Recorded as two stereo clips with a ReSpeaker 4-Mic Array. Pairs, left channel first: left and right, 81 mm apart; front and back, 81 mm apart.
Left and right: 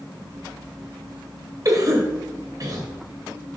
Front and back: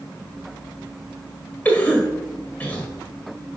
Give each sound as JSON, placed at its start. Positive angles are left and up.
{"t": 1.6, "sound": "a cough", "azimuth_deg": -65, "distance_m": 1.9}